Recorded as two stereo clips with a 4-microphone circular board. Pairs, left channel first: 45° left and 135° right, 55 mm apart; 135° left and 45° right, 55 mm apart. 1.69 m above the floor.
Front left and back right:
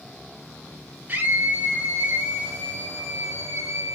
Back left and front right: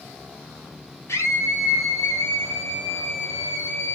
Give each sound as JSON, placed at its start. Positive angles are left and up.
{"t": 1.1, "sound": "a scream", "azimuth_deg": 165, "distance_m": 5.0}